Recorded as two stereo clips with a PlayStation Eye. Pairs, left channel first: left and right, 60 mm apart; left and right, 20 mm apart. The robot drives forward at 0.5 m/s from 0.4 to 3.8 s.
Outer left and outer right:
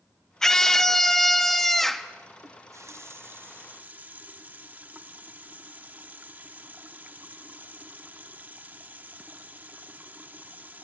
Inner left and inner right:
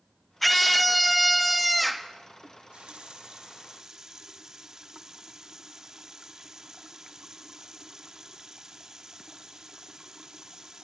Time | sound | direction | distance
0.4 | a scream | 10° left (ahead or behind) | 0.7 m
2.4 | a running tap | 70° right (ahead or behind) | 0.6 m